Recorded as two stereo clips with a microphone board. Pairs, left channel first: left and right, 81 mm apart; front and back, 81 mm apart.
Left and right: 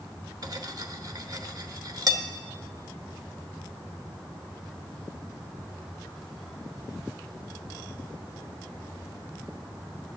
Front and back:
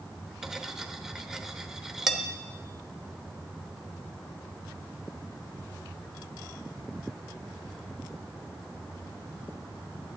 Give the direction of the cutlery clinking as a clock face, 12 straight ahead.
3 o'clock.